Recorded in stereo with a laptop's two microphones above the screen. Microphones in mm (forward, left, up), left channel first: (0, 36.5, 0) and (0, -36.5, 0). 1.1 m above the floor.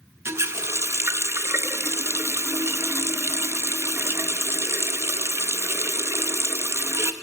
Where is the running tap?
35° right (ahead or behind), 0.5 m.